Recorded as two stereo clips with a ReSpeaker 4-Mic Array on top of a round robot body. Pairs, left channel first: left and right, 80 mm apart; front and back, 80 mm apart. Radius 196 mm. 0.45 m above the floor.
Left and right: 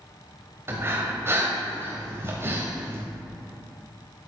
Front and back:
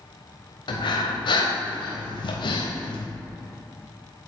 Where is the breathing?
25° right, 0.6 m.